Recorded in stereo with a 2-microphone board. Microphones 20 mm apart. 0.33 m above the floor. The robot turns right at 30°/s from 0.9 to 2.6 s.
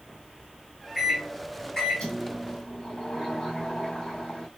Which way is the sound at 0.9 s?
5° left.